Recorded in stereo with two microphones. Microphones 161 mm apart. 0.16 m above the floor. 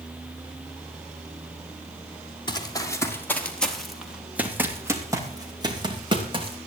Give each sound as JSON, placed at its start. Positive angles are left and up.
{"t": 2.5, "sound": "running footsteps", "side_deg": 25, "distance_m": 3.0}